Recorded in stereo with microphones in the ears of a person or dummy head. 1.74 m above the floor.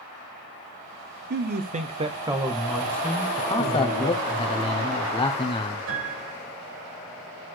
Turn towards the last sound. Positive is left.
turn(degrees=-80)